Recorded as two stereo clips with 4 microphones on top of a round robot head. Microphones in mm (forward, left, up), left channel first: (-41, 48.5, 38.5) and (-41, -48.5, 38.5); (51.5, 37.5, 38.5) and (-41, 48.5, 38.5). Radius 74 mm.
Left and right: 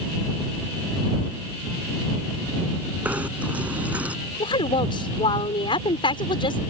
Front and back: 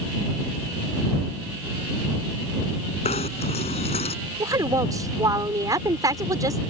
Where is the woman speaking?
125° left.